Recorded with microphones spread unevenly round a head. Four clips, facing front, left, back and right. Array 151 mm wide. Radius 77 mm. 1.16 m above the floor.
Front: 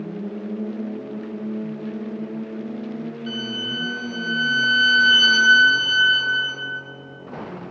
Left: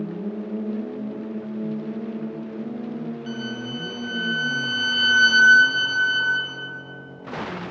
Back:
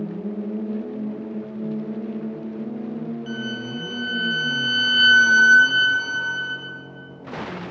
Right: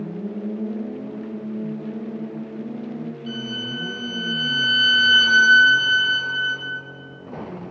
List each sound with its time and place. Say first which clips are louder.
3.3 s a violin: even, even; 110° left, 1.5 m